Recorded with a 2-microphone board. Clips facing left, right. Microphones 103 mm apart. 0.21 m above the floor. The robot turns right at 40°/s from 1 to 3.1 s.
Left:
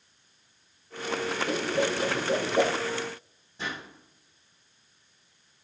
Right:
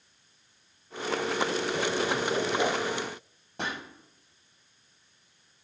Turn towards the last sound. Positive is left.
turn(degrees=-70)  # may be behind; listen again after turning